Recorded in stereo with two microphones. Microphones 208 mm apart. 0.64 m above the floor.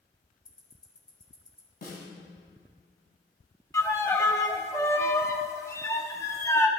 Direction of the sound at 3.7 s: 15° left (ahead or behind).